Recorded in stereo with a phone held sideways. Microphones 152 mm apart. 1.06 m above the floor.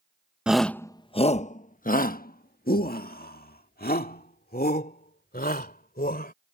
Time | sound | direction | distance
0.5 | a shout | 5° right (ahead or behind) | ?